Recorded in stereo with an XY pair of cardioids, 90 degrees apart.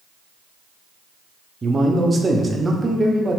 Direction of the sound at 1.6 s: 30° right.